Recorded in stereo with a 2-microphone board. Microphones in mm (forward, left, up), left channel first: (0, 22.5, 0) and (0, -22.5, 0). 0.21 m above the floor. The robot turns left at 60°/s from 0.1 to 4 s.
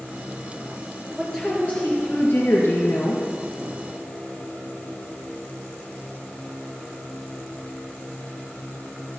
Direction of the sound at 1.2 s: Straight behind.